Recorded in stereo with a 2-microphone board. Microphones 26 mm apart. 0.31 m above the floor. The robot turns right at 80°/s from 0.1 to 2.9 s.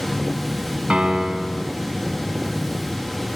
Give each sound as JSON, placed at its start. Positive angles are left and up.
{"t": 0.9, "sound": "a piano", "azimuth_deg": -50, "distance_m": 2.5}